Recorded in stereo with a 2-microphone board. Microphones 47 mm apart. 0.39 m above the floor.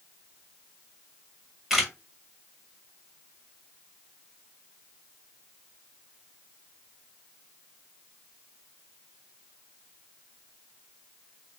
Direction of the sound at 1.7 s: 10° right (ahead or behind).